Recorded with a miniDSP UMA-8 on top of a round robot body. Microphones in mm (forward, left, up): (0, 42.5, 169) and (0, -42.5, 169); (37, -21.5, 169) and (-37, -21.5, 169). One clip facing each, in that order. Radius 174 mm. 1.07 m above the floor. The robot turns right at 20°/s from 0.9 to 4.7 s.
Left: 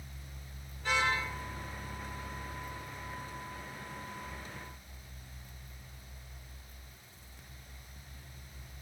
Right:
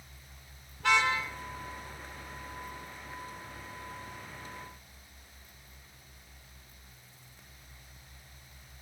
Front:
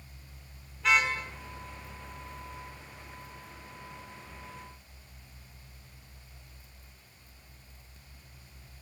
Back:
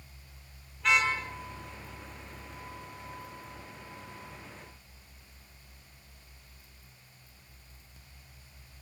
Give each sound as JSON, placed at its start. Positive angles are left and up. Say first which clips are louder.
{"t": 0.8, "sound": "a car horn", "louder": "right 4 dB, even", "azimuth_deg": -90, "distance_m": 6.5}